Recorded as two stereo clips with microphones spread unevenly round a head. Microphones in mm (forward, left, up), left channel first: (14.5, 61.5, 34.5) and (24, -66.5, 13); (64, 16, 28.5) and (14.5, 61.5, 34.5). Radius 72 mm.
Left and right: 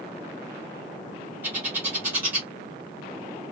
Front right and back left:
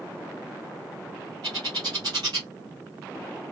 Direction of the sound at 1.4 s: 165° right.